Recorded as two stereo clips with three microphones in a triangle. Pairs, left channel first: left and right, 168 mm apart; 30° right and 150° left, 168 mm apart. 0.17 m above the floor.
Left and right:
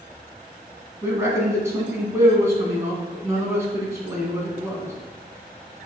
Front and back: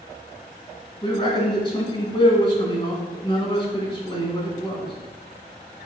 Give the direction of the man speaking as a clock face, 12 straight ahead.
1 o'clock.